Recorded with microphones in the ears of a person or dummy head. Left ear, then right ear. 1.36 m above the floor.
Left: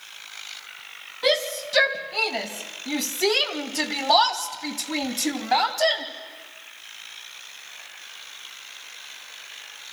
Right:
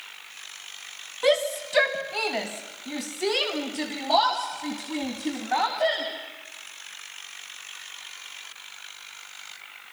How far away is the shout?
About 3 m.